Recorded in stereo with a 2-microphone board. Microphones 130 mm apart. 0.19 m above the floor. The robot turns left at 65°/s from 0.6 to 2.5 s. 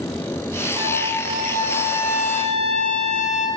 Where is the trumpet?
140° right, 5.5 m; by 3.5 s 105° left, 5.5 m.